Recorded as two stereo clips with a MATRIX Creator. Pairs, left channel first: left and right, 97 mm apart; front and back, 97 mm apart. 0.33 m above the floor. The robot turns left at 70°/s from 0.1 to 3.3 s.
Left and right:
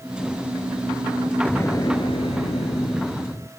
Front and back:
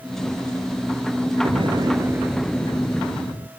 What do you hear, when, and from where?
1.4 s an explosion: 160° left; by 3.5 s 30° left